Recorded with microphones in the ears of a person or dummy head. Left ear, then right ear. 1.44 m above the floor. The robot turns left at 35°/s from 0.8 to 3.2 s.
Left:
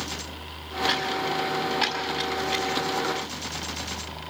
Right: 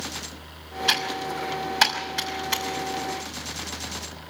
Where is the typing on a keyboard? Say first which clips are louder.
Right 2 dB; 80° right, 5.5 m; by 2.6 s 40° right (ahead or behind), 5.5 m.